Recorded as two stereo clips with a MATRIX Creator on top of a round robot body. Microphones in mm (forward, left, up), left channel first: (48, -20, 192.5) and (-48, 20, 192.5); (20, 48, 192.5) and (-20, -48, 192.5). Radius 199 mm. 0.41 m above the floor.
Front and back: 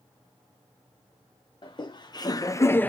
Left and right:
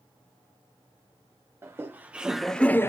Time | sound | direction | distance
1.6 | laughter | 50° right | 1.1 m